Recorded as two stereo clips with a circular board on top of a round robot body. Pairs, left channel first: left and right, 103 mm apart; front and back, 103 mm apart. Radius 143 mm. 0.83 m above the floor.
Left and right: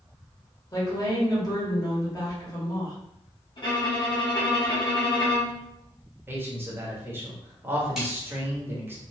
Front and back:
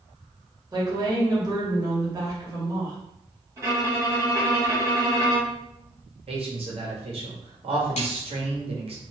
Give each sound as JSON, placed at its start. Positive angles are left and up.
{"t": 0.7, "sound": "a woman speaking", "azimuth_deg": 140, "distance_m": 1.7}
{"t": 3.6, "sound": "a violin", "azimuth_deg": 125, "distance_m": 1.8}
{"t": 6.3, "sound": "a man speaking", "azimuth_deg": -160, "distance_m": 1.2}
{"t": 8.0, "sound": "a snare drum", "azimuth_deg": -5, "distance_m": 1.2}